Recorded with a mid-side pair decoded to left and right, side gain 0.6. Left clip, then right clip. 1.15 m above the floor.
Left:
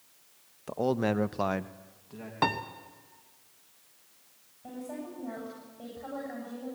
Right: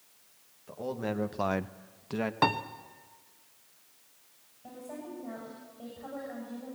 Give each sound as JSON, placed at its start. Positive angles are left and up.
{"t": 0.7, "sound": "a man speaking", "azimuth_deg": 55, "distance_m": 1.3}
{"t": 2.4, "sound": "a piano", "azimuth_deg": -10, "distance_m": 1.1}
{"t": 4.6, "sound": "a woman speaking", "azimuth_deg": 15, "distance_m": 8.5}